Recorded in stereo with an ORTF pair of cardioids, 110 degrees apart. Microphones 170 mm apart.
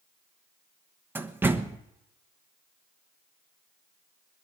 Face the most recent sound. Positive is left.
turn(degrees=-15)